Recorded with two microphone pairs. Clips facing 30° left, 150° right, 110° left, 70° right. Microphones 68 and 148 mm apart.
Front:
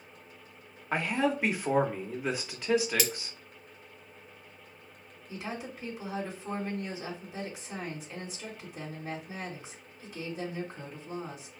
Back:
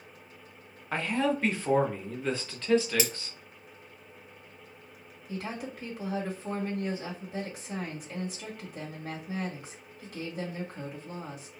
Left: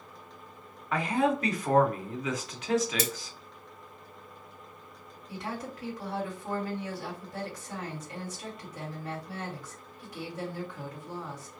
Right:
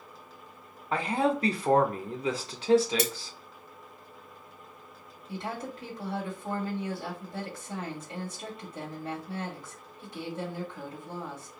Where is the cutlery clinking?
85° right, 0.7 m.